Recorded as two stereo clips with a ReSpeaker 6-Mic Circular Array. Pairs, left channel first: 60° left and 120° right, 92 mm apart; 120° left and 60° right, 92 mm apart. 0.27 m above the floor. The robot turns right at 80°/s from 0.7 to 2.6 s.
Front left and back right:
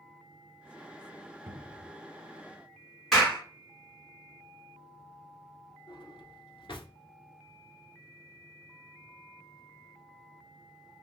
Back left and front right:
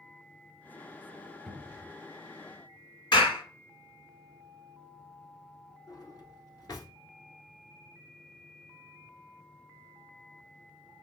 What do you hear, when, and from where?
1.5 s a cupboard door: 150° right, 0.6 m; by 1.9 s 110° right, 0.6 m
3.1 s a clap: 145° left, 1.8 m
5.9 s a drawer: 75° left, 0.9 m